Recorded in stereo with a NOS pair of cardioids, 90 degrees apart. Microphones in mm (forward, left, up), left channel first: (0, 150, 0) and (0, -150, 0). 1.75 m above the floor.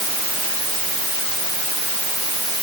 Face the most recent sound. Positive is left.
No sound to turn to.